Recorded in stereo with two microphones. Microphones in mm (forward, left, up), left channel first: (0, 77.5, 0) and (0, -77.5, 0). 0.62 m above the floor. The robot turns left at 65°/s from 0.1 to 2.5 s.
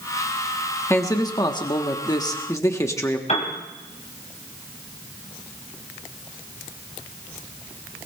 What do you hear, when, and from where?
0.9 s a man speaking: 15° left (ahead or behind), 1.2 m; by 3.2 s 20° left (ahead or behind), 1.2 m
3.3 s a piano: 45° left (ahead or behind), 3.5 m